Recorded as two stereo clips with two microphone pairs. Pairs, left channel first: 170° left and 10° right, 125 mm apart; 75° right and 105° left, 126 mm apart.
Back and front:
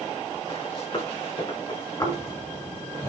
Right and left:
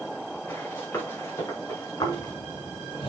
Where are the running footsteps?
145° right, 5.5 m; by 2.3 s 135° right, 5 m.